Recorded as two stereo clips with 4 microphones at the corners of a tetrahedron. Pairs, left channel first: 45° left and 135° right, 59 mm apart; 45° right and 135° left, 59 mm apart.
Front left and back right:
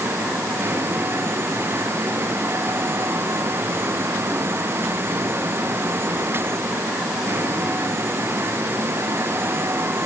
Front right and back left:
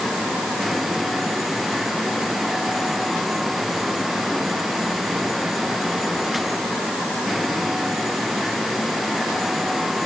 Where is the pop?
No pop in this recording.